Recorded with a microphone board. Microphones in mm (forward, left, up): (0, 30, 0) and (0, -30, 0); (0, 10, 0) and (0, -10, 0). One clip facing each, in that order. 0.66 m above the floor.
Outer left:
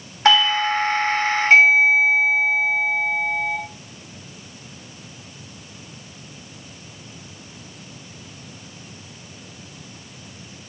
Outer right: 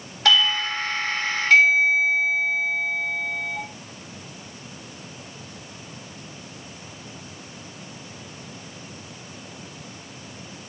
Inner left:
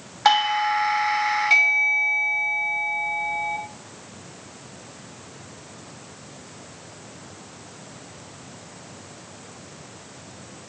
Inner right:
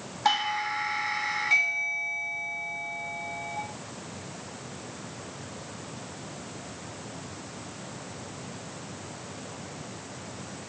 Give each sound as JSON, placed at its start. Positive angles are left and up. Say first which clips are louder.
{"t": 0.2, "sound": "a doorbell", "louder": "outer left 4 dB, inner left 7 dB", "side_deg": 30, "distance_m": 1.3}